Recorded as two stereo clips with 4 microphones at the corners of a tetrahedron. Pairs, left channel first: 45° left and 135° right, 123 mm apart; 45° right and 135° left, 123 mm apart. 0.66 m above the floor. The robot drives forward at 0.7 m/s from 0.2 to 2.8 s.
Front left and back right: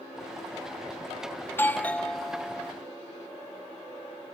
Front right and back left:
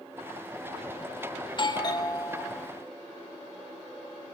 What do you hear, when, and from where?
1.5 s a doorbell: 20° right, 1.4 m; by 2.7 s 85° right, 1.0 m